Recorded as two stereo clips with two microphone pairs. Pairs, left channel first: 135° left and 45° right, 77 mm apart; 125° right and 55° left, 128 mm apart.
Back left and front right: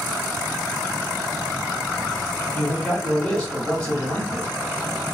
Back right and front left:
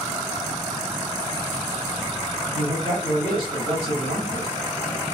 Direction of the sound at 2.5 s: 70° left.